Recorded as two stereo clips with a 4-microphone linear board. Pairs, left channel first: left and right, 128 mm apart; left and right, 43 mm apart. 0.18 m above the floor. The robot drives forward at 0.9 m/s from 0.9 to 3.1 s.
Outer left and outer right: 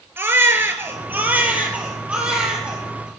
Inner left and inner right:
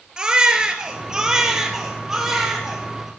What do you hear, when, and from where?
0.2 s a baby crying: 15° right (ahead or behind), 1.2 m; by 3.1 s 5° right (ahead or behind), 3 m